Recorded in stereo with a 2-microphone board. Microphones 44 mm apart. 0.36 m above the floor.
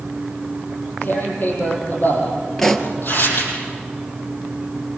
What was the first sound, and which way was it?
Tearing paper, 50° left (ahead or behind).